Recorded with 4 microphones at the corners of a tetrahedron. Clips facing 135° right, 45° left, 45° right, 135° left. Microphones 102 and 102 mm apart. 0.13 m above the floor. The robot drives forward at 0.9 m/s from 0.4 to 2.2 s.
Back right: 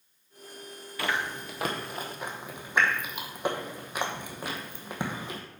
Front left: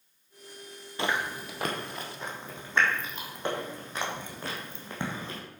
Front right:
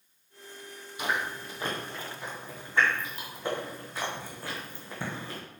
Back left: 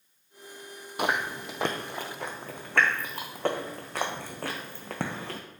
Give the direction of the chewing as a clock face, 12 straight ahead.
8 o'clock.